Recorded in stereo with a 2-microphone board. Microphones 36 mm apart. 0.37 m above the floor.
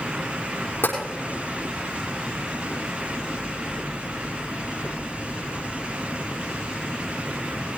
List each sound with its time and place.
0.8 s tapping: 75° left (ahead or behind), 5.5 m